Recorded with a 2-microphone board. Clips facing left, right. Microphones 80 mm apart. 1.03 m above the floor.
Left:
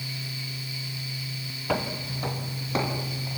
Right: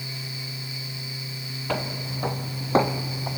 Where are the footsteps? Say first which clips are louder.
Left 1 dB; 5° left (ahead or behind), 2 m; by 3.4 s 45° right (ahead or behind), 3.5 m.